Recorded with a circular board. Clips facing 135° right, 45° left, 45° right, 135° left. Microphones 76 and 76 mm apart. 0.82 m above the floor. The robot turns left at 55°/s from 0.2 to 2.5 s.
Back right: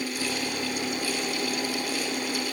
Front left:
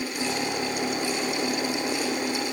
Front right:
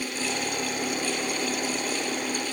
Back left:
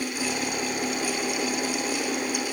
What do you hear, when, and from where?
Only background noise.